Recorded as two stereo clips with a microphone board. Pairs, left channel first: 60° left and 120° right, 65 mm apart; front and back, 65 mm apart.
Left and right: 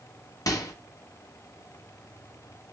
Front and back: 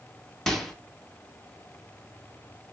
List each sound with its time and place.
0.5 s a microwave: 80° left, 0.7 m